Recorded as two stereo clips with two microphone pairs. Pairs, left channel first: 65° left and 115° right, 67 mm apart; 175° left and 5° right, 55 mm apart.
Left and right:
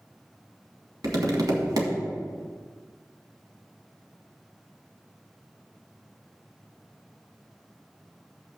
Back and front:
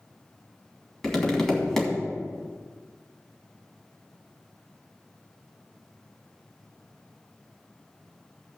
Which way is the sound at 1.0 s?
105° right.